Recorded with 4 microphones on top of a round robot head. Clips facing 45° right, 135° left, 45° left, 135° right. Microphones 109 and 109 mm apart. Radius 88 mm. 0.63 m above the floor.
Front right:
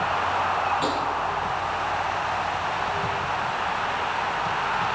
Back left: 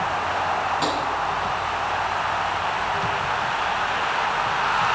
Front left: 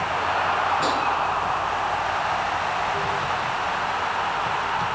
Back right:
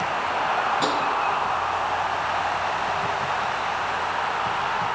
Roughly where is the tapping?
Behind.